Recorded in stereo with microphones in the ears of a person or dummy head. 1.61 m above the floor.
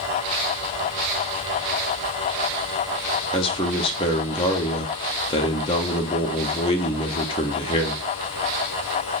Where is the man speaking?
30° left (ahead or behind), 0.5 m.